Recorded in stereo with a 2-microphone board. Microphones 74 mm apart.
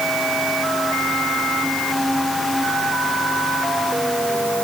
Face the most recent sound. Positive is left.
No sound to turn to.